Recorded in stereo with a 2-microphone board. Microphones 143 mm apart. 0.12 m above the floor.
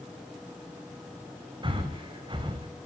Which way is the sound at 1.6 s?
35° right (ahead or behind).